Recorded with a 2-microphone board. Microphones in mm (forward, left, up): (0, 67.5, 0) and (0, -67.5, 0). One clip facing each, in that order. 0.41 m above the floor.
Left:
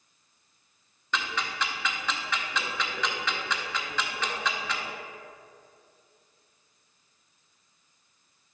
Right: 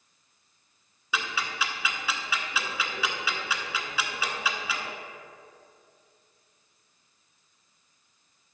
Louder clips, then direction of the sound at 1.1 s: Even; 5° right (ahead or behind).